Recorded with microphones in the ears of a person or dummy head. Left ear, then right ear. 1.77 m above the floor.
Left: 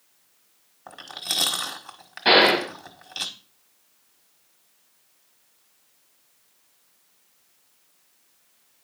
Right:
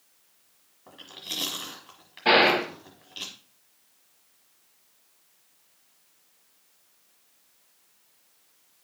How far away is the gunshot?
About 5 m.